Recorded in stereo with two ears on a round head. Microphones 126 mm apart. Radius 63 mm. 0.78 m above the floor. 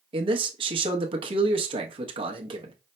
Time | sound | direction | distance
0.1 | a man speaking | 40° right (ahead or behind) | 0.8 m